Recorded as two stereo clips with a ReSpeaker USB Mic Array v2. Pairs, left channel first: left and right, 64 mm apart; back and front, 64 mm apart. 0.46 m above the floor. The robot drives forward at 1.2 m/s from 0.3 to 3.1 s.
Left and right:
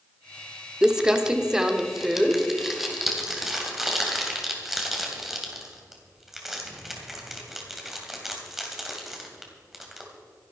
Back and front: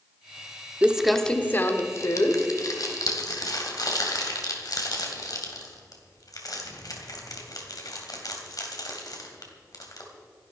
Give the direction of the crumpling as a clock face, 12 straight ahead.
1 o'clock.